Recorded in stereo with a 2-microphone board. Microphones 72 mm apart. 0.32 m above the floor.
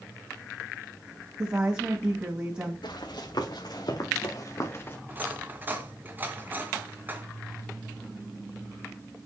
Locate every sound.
1.4 s a woman speaking: 20° right (ahead or behind), 2 m
2.8 s running footsteps: 85° left, 4 m; by 5.0 s 25° left (ahead or behind), 2.0 m
5.1 s cutlery clinking: 25° right (ahead or behind), 2 m